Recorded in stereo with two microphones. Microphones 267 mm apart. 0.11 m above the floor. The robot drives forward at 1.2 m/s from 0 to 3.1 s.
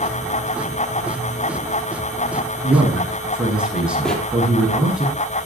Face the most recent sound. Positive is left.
turn(degrees=5)  # may be behind; listen again after turning